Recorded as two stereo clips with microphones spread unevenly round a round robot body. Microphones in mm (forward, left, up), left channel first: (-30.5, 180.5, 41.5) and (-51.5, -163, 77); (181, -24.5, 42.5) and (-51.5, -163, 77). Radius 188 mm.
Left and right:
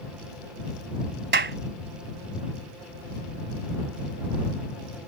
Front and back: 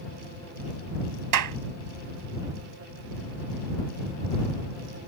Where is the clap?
155° right.